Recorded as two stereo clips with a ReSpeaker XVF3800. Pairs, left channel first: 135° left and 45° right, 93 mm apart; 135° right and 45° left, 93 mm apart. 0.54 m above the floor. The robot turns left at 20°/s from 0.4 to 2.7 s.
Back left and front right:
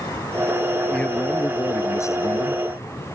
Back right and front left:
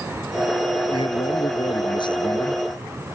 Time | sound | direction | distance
0.9 | a man speaking | 145° right | ?